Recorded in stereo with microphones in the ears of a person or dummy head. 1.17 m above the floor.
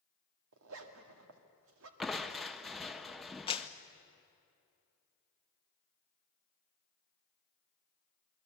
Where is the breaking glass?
No breaking glass in this recording.